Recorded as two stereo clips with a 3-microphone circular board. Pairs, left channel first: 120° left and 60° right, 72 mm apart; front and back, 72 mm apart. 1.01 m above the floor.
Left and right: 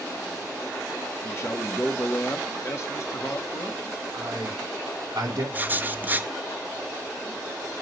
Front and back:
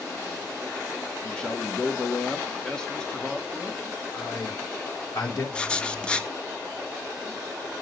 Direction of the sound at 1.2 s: 75° left.